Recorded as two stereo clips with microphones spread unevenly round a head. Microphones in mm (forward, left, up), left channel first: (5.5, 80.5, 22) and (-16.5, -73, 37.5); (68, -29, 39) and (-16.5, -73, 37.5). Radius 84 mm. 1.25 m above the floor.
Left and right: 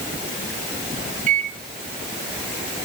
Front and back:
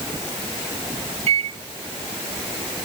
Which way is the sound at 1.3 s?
140° right.